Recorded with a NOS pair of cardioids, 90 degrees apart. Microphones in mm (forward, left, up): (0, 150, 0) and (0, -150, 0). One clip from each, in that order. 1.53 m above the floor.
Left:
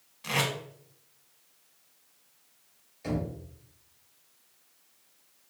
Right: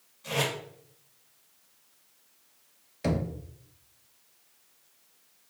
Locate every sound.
0.2 s tape being pulled: 65° left, 1.7 m
3.0 s knocking: 65° right, 0.9 m